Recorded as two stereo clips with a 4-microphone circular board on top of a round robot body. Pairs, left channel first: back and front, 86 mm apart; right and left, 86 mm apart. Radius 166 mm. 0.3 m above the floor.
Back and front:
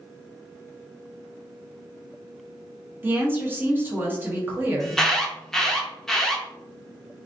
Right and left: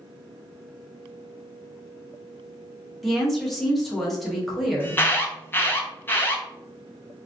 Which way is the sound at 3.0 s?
Straight ahead.